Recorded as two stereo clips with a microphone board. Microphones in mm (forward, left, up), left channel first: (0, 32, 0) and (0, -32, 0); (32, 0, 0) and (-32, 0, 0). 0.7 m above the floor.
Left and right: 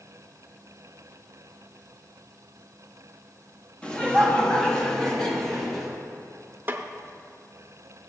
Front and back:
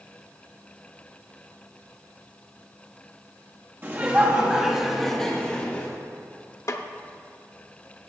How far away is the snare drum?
About 0.6 m.